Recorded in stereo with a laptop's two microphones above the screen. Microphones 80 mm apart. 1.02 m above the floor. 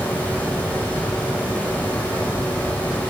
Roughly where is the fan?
Left.